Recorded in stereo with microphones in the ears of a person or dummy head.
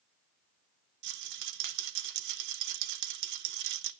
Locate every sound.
1.0 s a rattle: 65° right (ahead or behind), 0.7 m